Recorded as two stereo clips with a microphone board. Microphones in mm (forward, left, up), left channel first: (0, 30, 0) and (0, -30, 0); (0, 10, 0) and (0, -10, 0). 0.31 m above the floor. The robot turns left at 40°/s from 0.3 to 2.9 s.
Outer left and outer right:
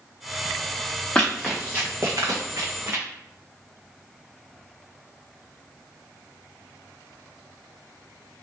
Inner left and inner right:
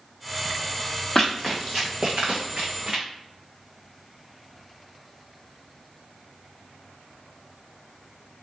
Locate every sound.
1.1 s running footsteps: 20° left (ahead or behind), 1.2 m; by 3.0 s 50° right (ahead or behind), 1.2 m